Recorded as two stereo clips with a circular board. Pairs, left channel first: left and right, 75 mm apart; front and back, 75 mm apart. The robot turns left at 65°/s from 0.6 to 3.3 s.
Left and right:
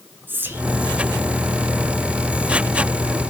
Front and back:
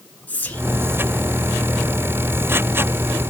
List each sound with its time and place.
0.3 s whispering: 50° right, 1.4 m; by 0.7 s 55° right, 1.4 m